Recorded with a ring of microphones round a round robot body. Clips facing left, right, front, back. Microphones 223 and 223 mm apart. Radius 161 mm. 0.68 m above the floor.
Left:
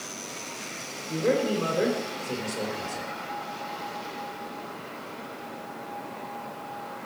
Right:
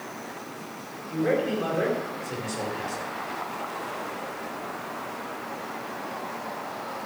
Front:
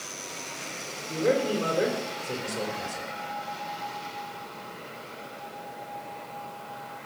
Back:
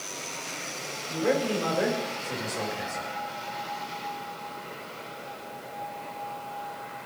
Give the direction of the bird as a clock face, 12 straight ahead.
No bird in this recording.